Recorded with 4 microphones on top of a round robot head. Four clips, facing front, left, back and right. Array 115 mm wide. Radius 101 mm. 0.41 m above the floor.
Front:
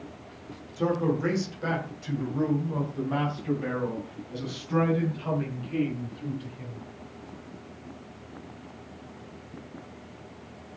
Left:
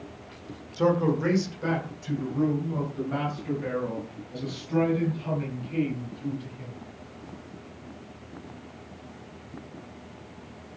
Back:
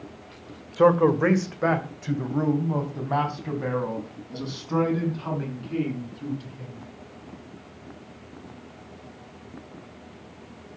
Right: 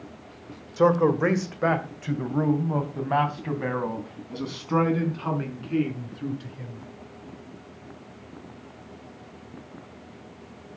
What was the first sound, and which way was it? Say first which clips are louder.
A man speaking: right 4 dB, back 8 dB; 150° right.